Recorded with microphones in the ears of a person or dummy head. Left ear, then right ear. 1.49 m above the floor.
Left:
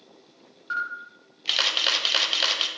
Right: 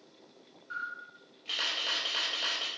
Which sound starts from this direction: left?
A camera shutter, at 0.7 s.